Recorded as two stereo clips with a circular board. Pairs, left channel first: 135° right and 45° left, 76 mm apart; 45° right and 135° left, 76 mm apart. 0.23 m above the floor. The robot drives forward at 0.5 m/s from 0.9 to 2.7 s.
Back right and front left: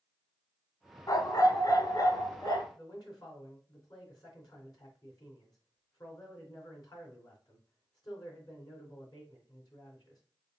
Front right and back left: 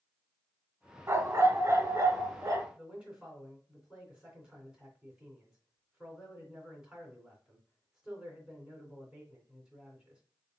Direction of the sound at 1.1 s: 170° right.